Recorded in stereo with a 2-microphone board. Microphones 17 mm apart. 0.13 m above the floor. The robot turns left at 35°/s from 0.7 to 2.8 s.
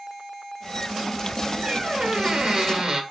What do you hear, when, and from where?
1.6 s a squeak: 80° right, 1.9 m; by 3.0 s 120° right, 1.9 m